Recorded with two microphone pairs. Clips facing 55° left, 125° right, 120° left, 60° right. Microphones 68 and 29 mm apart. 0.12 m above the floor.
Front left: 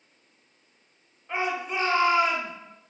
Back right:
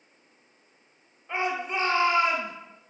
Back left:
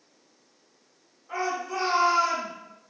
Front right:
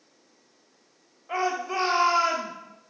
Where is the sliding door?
No sliding door in this recording.